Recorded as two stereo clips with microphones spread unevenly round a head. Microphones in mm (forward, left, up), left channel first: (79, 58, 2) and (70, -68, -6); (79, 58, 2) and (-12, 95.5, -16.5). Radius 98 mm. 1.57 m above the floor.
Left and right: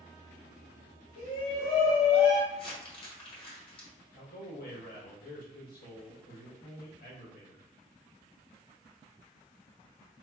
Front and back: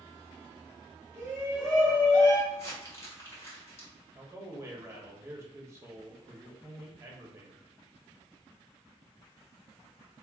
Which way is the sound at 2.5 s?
40° left.